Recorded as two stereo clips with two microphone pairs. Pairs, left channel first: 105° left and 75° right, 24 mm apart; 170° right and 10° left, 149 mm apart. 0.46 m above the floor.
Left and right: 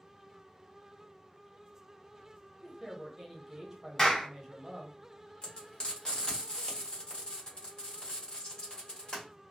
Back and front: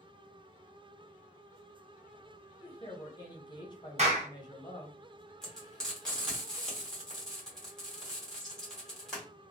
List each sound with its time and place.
2.6 s a woman speaking: 135° right, 0.8 m
4.0 s a clap: 40° left, 0.9 m
5.4 s frying: 105° left, 1.4 m